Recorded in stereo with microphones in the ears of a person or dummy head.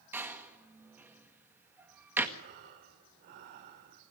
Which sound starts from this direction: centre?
A door slam, at 0.1 s.